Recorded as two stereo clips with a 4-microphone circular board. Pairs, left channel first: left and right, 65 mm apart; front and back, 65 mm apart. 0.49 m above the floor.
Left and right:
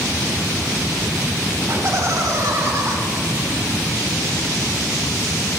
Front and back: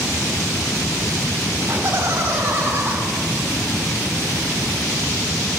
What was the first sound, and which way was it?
Laughter, 135° right.